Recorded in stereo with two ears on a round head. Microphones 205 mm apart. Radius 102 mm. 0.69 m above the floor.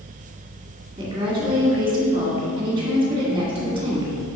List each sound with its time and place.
1.0 s a woman speaking: 25° right (ahead or behind), 1.8 m